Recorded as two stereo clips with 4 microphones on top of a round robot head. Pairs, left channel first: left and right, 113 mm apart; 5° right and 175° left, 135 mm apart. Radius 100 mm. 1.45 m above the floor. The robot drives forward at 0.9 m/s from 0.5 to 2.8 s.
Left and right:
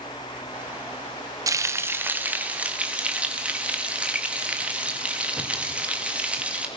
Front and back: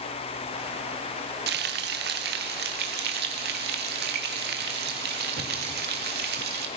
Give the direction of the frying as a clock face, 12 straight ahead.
5 o'clock.